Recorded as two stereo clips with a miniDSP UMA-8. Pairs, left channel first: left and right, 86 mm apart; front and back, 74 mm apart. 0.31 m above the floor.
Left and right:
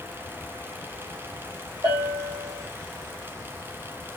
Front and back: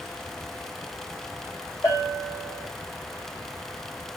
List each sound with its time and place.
1.8 s a bell: 50° right, 6.5 m